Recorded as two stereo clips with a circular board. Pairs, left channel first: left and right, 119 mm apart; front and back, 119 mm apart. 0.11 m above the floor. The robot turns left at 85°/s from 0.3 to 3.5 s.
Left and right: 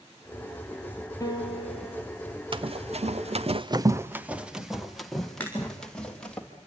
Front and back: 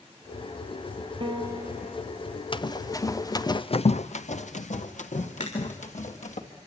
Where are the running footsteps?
45° right, 1.1 m; by 6.4 s 10° left, 3.5 m.